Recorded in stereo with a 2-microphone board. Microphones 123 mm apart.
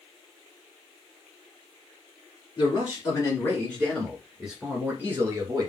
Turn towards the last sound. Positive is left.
turn(degrees=-30)  # may be behind; listen again after turning